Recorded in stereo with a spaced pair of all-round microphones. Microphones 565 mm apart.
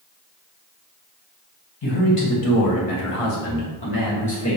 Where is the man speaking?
55° left (ahead or behind), 1.4 m; by 4.6 s 25° left (ahead or behind), 1.6 m.